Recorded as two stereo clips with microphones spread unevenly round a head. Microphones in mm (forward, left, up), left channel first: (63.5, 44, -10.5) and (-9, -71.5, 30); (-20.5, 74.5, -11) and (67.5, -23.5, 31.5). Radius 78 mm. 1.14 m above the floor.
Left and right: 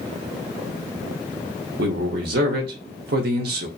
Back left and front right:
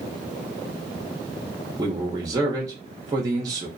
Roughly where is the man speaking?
Behind right.